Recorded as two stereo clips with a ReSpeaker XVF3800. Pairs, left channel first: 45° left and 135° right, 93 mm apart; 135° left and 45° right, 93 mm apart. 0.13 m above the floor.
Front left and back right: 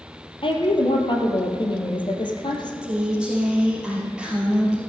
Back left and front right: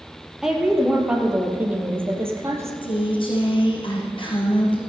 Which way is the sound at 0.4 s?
40° left.